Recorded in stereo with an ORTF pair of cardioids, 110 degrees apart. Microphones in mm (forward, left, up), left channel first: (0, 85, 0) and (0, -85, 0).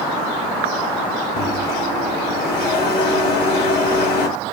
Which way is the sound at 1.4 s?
70° left.